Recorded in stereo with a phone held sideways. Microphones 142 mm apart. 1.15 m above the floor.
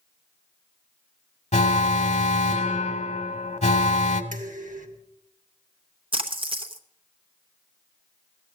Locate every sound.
1.5 s an alarm: 50° left (ahead or behind), 0.8 m
4.3 s dishes clattering: 65° right (ahead or behind), 1.1 m
6.1 s a splash: 40° right (ahead or behind), 0.9 m